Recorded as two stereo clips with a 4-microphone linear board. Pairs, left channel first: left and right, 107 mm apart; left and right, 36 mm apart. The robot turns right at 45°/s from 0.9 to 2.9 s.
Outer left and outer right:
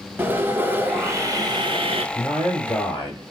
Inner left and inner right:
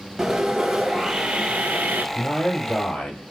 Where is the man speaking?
5° left, 1.0 m; by 3.3 s 40° left, 1.0 m.